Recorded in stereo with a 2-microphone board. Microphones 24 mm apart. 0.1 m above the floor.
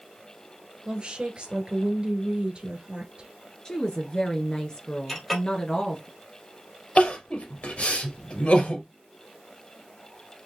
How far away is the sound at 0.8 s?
About 1.6 m.